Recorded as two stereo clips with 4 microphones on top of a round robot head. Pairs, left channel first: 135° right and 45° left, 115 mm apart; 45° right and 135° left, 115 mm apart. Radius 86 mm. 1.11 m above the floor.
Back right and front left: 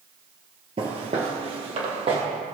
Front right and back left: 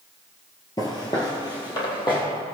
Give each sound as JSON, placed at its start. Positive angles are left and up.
{"t": 0.8, "sound": "footsteps", "azimuth_deg": 10, "distance_m": 1.6}